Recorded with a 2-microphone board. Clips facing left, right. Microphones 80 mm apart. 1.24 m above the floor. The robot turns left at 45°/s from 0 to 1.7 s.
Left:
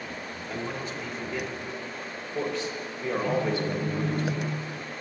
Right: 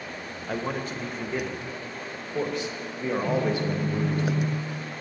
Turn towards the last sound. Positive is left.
turn(degrees=-30)  # may be behind; listen again after turning